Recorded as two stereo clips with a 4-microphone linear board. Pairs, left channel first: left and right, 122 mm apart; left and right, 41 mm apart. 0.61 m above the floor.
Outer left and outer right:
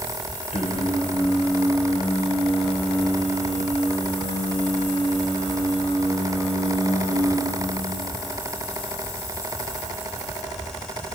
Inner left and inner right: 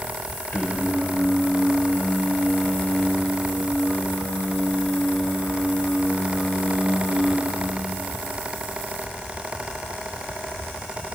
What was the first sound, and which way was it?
Singing, 70° left (ahead or behind).